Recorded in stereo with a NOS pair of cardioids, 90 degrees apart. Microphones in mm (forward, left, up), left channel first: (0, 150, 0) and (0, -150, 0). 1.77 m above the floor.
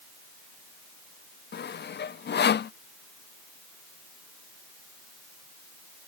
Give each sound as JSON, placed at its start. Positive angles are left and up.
{"t": 1.5, "sound": "sawing", "azimuth_deg": 35}